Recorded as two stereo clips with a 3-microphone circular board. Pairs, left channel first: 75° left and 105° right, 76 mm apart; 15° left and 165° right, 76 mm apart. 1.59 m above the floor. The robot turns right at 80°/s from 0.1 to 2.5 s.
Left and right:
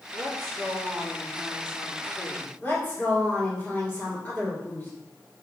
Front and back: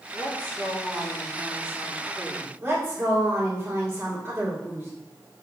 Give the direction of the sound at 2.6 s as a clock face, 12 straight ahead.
7 o'clock.